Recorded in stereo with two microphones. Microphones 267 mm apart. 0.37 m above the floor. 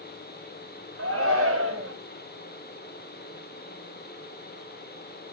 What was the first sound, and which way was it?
A shout, 55° right (ahead or behind).